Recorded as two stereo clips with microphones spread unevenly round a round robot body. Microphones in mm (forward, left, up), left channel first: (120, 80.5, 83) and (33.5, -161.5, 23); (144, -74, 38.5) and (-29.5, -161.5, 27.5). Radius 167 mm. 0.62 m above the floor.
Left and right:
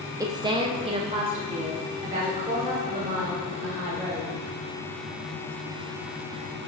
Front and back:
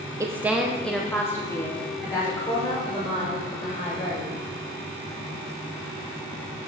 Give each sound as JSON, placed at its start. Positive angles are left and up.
{"t": 0.2, "sound": "a woman speaking", "azimuth_deg": -110, "distance_m": 0.7}